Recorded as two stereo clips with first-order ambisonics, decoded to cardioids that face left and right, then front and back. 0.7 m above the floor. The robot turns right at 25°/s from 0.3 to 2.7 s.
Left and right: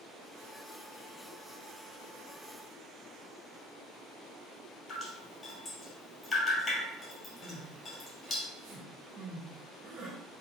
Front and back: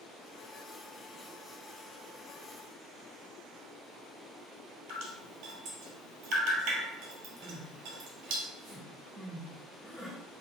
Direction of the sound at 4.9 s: 165° left.